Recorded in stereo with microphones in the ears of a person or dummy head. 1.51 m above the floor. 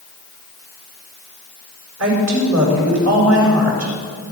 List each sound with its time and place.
2.0 s a woman speaking: 70° right (ahead or behind), 6 m